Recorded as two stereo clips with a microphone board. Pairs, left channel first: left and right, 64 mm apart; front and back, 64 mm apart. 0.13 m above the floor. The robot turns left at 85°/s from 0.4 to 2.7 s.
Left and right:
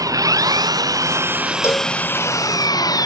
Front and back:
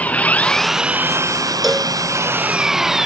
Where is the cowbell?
90° left; by 1.9 s 65° left.